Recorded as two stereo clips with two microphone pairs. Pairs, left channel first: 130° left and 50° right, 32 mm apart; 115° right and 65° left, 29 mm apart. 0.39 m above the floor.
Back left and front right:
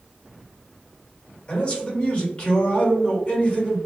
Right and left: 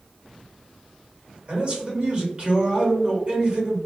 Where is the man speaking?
80° left, 1.4 m.